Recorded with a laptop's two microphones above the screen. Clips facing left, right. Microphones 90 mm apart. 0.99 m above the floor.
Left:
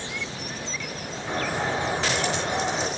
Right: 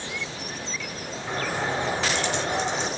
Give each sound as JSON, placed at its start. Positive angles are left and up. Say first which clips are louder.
{"t": 1.3, "sound": "a bird", "louder": "left 1 dB", "side_deg": 5, "distance_m": 6.0}